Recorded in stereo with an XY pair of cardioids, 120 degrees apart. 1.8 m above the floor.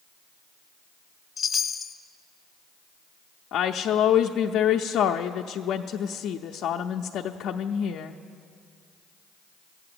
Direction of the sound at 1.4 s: 30° left.